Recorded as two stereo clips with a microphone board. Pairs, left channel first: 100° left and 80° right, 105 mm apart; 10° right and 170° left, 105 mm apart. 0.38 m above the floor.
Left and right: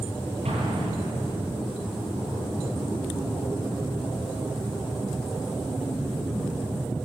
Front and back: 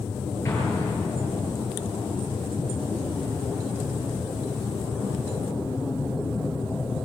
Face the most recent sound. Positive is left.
turn(degrees=-75)